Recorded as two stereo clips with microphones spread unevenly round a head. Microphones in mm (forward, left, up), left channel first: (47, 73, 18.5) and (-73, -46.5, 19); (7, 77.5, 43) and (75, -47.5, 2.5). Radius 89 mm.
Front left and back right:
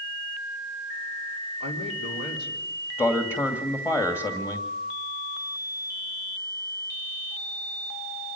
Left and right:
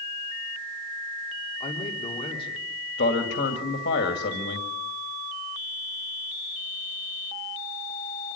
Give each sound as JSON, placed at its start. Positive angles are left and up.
{"t": 1.6, "sound": "a man speaking", "azimuth_deg": 65, "distance_m": 4.0}
{"t": 3.0, "sound": "a man speaking", "azimuth_deg": 120, "distance_m": 2.0}